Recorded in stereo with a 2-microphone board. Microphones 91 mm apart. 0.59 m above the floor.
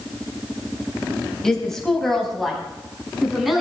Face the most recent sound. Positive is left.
turn(degrees=0)  # may be behind; listen again after turning